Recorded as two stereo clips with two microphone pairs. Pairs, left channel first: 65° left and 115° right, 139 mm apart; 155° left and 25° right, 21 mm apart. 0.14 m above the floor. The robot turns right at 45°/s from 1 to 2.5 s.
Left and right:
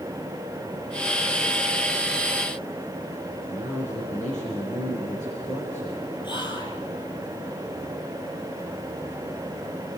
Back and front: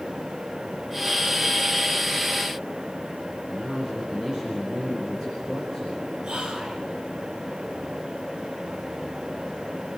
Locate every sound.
3.5 s a man speaking: 45° left, 5 m
6.2 s whispering: 15° left, 3 m